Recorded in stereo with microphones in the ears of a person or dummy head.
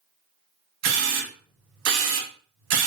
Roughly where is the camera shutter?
Right.